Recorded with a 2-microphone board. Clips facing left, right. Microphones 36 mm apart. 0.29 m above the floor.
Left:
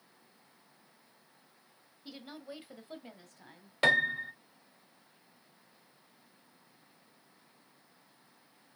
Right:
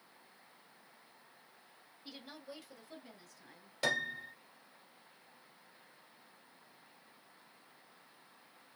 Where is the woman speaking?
5° left (ahead or behind), 1.3 m; by 3.7 s 55° left (ahead or behind), 1.8 m.